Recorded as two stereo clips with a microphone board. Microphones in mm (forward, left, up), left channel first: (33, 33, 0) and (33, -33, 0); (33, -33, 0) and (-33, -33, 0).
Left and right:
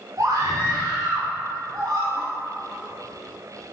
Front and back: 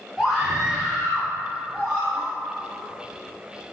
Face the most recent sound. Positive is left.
turn(degrees=-105)